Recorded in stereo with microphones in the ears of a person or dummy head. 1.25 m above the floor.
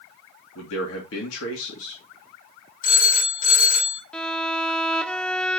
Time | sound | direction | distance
0.6 | a man speaking | 75° left (ahead or behind) | 2.5 m
2.8 | a phone ringing | 45° left (ahead or behind) | 6 m
4.1 | a violin | 5° left (ahead or behind) | 0.6 m